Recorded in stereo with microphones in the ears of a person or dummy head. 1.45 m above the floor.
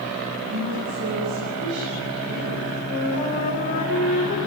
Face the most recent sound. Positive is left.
turn(degrees=45)  # may be behind; listen again after turning